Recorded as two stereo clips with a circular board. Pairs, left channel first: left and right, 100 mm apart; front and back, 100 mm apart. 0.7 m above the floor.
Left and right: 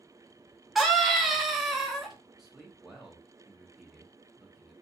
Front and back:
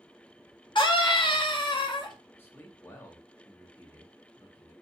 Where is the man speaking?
10° right, 0.6 m.